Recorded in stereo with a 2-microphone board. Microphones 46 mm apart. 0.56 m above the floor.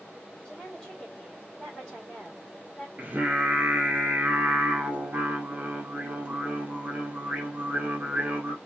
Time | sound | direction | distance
0.5 | a woman speaking | 10° left (ahead or behind) | 2 m
3.0 | singing | 35° right (ahead or behind) | 1.1 m